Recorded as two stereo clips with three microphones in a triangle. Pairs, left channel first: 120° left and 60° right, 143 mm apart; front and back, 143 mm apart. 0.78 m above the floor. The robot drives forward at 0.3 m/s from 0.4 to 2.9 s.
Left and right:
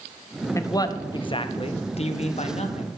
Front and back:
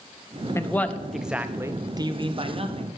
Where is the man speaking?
65° left, 0.5 m; by 3.0 s 150° left, 0.7 m.